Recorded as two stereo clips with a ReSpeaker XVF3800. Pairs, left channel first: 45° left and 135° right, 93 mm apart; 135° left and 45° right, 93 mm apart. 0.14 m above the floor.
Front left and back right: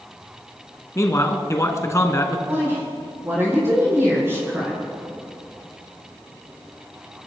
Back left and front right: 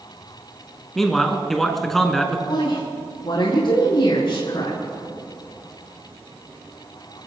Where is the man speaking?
50° left, 1.4 m.